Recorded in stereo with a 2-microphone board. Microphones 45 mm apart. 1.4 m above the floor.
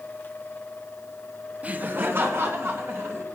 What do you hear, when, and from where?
1.6 s laughter: 30° right (ahead or behind), 0.9 m; by 3.2 s 60° right (ahead or behind), 3 m